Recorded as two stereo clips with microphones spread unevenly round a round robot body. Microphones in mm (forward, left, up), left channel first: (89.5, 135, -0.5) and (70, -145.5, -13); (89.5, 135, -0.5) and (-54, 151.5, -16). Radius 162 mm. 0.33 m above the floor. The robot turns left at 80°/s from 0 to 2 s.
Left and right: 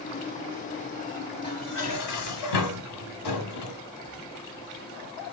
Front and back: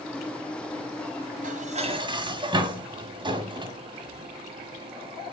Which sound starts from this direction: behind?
Dishes clattering, at 1.4 s.